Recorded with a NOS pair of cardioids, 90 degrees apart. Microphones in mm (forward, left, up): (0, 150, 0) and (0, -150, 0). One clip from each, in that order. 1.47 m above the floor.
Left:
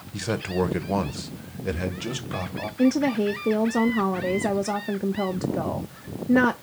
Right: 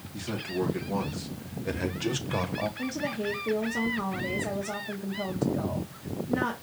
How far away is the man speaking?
About 1.0 m.